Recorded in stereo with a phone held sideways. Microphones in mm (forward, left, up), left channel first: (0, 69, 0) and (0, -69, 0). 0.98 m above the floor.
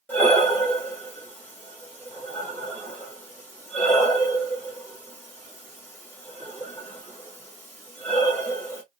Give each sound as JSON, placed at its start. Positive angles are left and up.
{"t": 0.1, "sound": "breathing", "side_deg": 15, "distance_m": 1.7}